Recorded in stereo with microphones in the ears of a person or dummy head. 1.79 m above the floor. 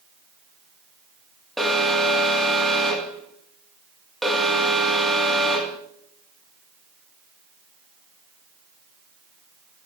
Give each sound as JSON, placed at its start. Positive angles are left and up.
{"t": 1.6, "sound": "an alarm", "side_deg": 0, "distance_m": 3.0}